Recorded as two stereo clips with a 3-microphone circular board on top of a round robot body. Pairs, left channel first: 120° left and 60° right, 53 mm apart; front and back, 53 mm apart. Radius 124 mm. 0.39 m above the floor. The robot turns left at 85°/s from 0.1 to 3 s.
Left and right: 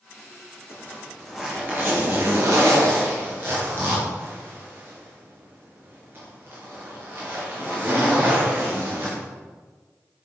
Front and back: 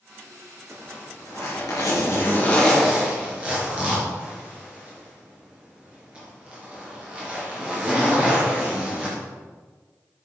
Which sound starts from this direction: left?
A zipper, at 0.7 s.